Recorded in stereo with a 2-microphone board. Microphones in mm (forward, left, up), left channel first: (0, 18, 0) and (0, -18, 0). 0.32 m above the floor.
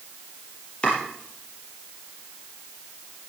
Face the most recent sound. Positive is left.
turn(degrees=35)  # may be behind; listen again after turning